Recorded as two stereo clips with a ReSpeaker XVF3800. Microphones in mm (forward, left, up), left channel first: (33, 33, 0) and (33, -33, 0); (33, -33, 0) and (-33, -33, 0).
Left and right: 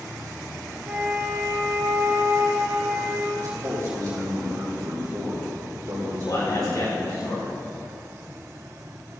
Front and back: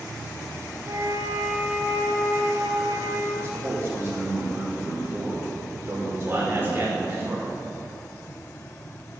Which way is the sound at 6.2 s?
120° left.